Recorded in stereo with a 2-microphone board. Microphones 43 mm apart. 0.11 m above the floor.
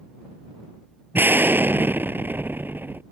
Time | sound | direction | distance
1.1 | an explosion | 60° right (ahead or behind) | ?